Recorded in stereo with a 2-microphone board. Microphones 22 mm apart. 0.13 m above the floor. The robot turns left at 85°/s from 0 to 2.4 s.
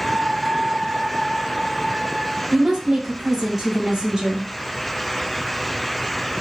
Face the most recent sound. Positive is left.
turn(degrees=-10)  # may be behind; listen again after turning